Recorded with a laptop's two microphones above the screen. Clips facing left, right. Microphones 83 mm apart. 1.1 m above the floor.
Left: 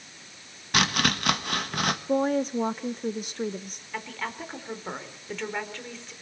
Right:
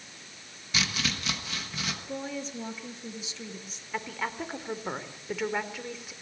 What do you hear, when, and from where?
0.7 s chopping: 60° left (ahead or behind), 1.2 m
2.1 s a woman speaking: 50° left (ahead or behind), 0.6 m
3.9 s a woman speaking: 5° right (ahead or behind), 3.5 m